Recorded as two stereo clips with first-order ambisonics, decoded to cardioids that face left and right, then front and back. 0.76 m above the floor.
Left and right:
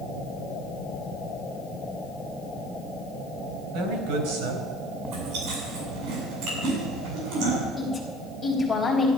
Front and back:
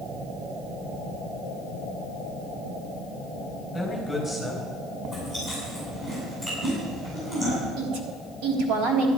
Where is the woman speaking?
170° left, 3.5 m.